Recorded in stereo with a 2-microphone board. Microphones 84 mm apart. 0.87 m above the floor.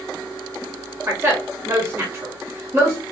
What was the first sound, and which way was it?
A woman speaking, 20° right (ahead or behind).